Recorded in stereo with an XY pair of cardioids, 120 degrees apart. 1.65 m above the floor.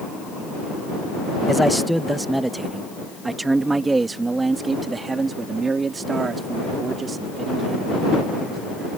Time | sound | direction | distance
1.5 | a man speaking | straight ahead | ?